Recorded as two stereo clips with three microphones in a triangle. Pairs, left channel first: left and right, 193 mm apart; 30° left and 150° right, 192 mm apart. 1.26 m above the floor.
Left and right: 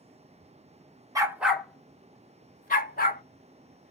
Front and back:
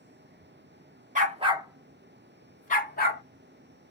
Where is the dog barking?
155° right, 0.8 m; by 3.2 s 55° left, 1.3 m.